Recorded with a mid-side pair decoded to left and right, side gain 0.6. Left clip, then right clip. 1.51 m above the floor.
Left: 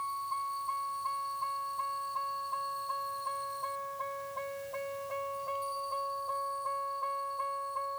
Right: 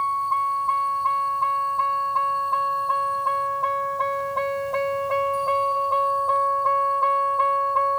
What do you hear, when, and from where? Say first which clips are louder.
0.0 s a vehicle: right 13 dB; 55° right; by 8.0 s 65° right